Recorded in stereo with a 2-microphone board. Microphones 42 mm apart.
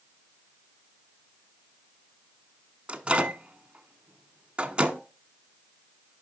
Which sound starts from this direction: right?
A microwave, at 2.9 s.